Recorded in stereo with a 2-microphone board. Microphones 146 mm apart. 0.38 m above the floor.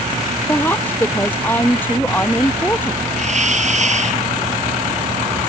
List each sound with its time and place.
0.5 s a woman speaking: 15° left (ahead or behind)
3.2 s a hiss: 50° right (ahead or behind)